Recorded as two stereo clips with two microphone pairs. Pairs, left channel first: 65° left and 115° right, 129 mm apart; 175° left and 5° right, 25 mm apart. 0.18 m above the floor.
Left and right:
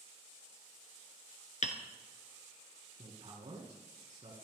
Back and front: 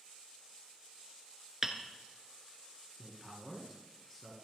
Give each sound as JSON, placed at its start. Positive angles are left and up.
{"t": 1.6, "sound": "hammering", "azimuth_deg": 70, "distance_m": 1.4}
{"t": 3.0, "sound": "a man speaking", "azimuth_deg": -85, "distance_m": 2.5}